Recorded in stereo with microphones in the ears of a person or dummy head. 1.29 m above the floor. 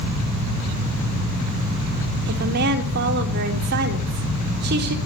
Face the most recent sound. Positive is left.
turn(degrees=-55)  # may be behind; listen again after turning